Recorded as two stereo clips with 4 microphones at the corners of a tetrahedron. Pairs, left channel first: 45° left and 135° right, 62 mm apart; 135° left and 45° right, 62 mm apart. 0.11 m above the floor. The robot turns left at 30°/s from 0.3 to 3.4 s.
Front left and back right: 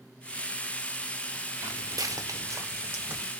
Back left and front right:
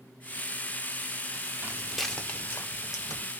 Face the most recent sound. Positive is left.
turn(degrees=150)